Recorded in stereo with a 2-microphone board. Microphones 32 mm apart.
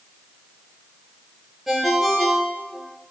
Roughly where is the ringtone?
Centre.